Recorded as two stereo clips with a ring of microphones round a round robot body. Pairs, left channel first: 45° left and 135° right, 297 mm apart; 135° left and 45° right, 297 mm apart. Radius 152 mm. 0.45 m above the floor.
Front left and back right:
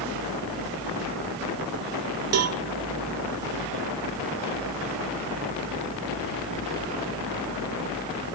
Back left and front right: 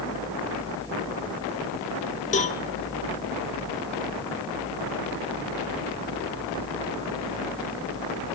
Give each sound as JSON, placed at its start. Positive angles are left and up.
{"t": 2.3, "sound": "a cowbell", "azimuth_deg": -160, "distance_m": 1.1}